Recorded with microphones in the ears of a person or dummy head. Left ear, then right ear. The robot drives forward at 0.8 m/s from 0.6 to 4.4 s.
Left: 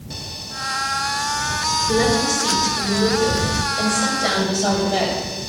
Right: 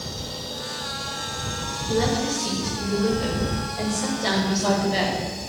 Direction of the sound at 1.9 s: 30° left (ahead or behind).